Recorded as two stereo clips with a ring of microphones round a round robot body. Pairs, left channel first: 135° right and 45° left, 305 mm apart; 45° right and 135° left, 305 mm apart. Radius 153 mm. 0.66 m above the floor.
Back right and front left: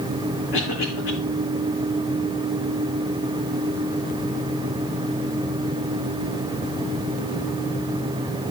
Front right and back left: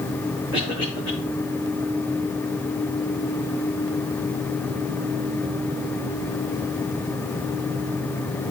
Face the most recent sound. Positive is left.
turn(degrees=-150)